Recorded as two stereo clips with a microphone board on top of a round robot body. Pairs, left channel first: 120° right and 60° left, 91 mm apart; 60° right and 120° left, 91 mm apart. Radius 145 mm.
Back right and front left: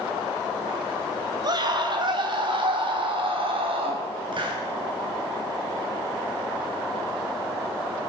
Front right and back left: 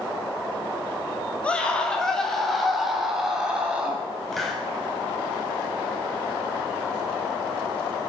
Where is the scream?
15° left, 3.5 m; by 4.0 s 45° left, 4.5 m.